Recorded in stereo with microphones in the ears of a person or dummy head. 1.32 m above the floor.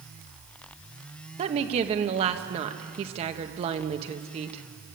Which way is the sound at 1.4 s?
40° right (ahead or behind).